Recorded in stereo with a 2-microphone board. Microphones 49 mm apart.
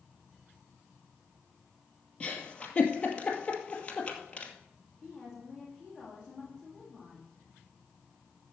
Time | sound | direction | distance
2.2 | a giggle | 25° left (ahead or behind) | 2.5 m
5.0 | a woman speaking | 10° right (ahead or behind) | 7 m